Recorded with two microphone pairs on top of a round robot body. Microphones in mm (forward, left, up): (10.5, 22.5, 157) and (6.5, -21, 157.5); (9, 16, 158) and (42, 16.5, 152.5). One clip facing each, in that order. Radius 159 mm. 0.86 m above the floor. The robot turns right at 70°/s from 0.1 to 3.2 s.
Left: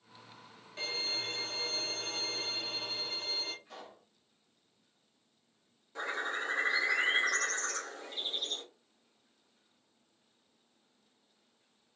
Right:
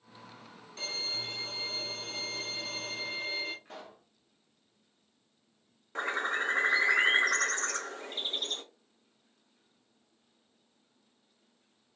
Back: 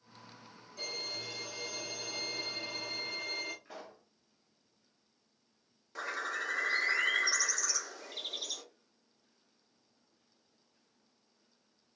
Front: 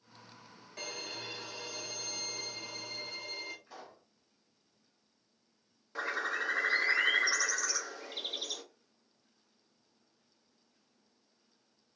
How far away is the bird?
About 0.9 m.